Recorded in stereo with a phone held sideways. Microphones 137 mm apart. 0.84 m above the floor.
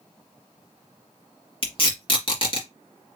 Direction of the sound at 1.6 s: 45° left (ahead or behind).